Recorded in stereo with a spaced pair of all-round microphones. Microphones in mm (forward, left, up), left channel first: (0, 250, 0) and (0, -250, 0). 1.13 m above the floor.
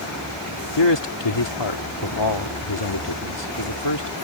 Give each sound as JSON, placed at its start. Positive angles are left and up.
{"t": 0.8, "sound": "a man speaking", "side_deg": 55}